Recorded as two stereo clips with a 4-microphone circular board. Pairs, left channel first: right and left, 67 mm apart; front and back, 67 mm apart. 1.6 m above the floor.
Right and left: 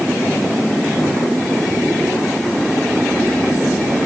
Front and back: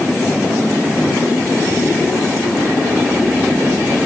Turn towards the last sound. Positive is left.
No sound to turn to.